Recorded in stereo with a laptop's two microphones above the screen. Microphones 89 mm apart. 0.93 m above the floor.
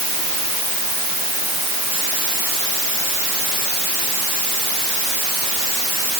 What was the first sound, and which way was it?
Only background noise.